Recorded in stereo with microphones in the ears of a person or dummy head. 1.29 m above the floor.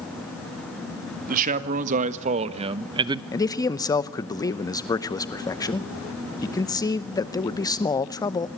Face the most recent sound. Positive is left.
turn(degrees=15)  # may be behind; listen again after turning